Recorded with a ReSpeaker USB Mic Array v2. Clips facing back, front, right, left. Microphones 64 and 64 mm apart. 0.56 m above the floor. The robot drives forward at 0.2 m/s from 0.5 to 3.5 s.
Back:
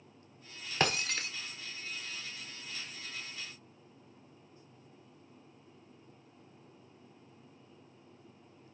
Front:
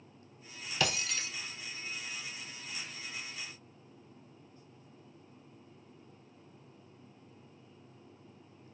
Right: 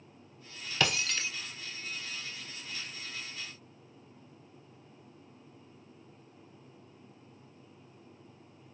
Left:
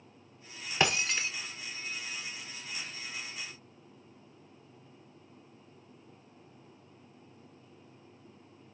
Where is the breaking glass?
155° left, 0.6 m; by 1.3 s 160° left, 0.7 m.